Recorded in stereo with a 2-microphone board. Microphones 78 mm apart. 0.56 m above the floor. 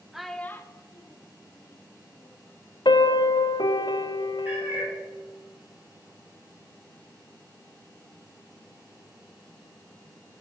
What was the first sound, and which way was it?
A child speaking, 5° right (ahead or behind).